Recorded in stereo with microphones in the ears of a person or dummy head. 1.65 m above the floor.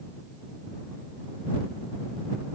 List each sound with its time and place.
Only background noise.